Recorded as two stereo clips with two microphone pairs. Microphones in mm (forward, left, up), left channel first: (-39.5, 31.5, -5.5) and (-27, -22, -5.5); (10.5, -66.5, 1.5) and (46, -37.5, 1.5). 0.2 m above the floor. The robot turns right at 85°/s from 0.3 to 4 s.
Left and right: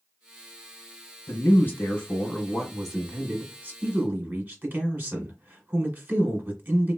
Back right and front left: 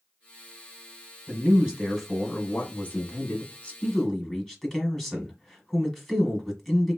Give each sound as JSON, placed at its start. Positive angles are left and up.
{"t": 1.3, "sound": "a man speaking", "azimuth_deg": 65, "distance_m": 1.4}